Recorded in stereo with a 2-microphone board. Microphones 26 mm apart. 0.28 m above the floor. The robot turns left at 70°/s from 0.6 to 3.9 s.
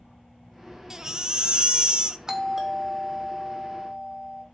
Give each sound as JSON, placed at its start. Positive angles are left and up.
{"t": 0.9, "sound": "a baby crying", "azimuth_deg": -35, "distance_m": 0.7}
{"t": 2.3, "sound": "a doorbell", "side_deg": -20, "distance_m": 1.8}